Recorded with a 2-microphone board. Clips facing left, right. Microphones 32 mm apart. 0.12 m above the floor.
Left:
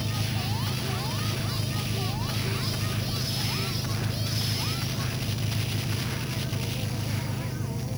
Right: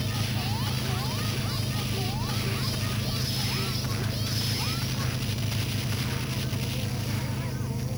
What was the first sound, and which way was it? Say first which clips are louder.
An engine running: even; 5° right (ahead or behind).